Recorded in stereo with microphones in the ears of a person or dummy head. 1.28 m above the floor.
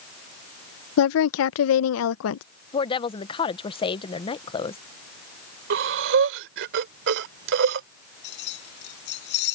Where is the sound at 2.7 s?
25° left (ahead or behind).